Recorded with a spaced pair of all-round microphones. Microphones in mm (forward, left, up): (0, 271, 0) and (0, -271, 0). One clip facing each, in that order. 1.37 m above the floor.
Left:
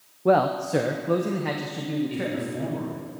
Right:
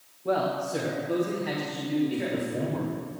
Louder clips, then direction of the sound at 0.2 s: Left 6 dB; 80° left.